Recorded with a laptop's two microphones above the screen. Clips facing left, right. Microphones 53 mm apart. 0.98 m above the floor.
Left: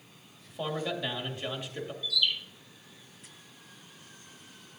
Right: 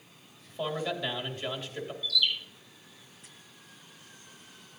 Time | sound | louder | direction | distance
0.5 | a man speaking | right 1 dB | 5° left (ahead or behind) | 1.9 m
2.0 | a bird | right 1 dB | 15° left (ahead or behind) | 3 m